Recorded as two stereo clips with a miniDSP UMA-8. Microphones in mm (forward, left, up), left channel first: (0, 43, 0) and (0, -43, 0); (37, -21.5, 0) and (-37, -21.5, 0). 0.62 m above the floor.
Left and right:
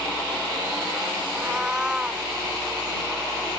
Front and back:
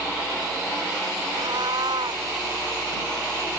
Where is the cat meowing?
170° right.